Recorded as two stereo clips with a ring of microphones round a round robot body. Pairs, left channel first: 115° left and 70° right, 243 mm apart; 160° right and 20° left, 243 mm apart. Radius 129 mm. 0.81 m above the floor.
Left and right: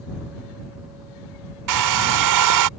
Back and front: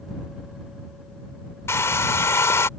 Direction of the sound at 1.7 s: 75° right.